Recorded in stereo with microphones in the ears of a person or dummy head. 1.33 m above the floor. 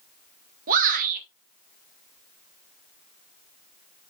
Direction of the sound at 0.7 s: 45° right (ahead or behind).